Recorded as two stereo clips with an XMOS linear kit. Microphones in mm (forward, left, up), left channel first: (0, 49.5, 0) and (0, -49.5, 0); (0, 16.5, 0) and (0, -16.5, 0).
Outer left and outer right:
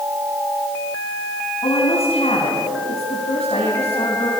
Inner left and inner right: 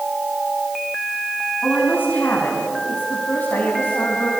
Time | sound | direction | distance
1.6 | a woman speaking | 80° left | 6.5 m